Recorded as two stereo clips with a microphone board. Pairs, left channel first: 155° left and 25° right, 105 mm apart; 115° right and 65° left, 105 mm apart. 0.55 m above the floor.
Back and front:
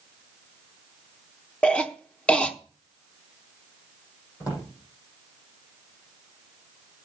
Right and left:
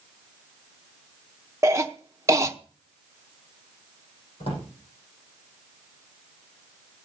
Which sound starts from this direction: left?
A cough, at 1.6 s.